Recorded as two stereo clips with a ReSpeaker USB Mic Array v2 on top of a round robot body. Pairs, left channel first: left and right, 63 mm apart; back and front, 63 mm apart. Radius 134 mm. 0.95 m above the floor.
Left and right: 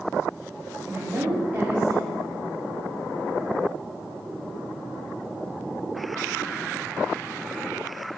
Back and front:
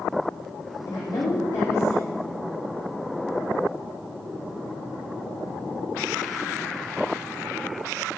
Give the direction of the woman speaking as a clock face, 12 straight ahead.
5 o'clock.